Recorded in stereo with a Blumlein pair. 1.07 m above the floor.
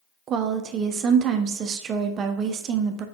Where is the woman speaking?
30° right, 0.6 m.